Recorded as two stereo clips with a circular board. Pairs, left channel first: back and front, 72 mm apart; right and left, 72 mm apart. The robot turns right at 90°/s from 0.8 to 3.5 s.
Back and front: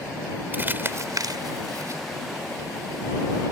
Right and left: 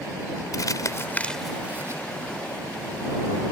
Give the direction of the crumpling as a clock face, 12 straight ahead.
2 o'clock.